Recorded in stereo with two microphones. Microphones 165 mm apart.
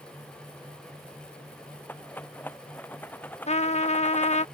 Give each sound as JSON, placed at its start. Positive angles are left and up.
{"t": 1.9, "sound": "a rattle", "side_deg": 10}
{"t": 3.5, "sound": "a trumpet", "side_deg": 45}